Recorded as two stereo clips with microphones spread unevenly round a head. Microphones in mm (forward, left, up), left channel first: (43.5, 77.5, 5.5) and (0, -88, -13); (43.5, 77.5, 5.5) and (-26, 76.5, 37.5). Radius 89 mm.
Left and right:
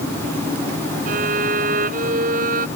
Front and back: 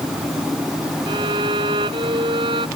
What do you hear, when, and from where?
1.1 s a violin: 155° right